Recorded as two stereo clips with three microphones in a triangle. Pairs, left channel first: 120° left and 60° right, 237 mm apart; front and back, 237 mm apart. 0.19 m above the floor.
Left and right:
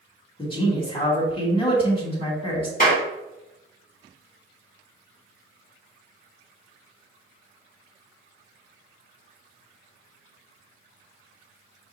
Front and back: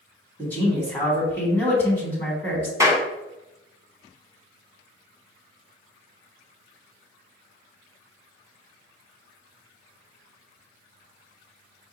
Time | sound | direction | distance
0.4 | a man speaking | 75° left | 1.7 m
2.8 | a clap | 110° left | 1.6 m